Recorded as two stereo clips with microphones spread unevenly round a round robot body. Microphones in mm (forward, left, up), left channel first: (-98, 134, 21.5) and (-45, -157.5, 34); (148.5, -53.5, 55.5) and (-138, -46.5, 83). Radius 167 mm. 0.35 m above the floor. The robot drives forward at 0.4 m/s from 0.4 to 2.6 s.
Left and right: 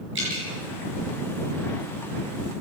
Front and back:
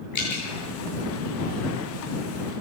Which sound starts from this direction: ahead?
Dripping, at 0.1 s.